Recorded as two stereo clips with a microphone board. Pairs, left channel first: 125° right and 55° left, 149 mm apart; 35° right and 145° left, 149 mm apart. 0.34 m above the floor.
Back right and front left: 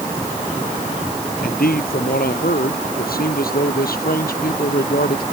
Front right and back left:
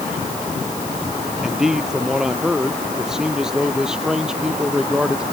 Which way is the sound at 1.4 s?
130° right.